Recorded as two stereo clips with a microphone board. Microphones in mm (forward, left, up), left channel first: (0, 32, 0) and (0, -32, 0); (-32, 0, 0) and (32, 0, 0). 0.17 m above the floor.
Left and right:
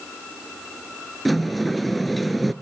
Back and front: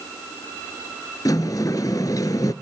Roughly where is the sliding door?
Behind.